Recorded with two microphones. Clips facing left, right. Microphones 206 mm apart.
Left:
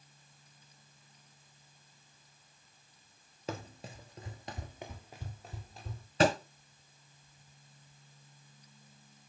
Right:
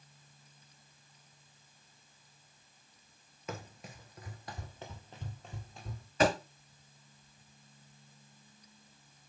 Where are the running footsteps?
30° left (ahead or behind), 0.9 m; by 6.1 s centre (ahead or behind), 1.4 m.